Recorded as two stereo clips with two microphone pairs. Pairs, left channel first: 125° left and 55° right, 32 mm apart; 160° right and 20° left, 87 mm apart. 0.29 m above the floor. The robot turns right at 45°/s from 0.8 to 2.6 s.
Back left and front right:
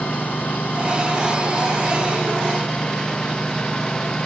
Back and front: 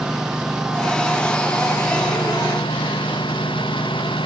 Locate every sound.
0.0 s a lawn mower: 105° left; by 4.3 s 175° right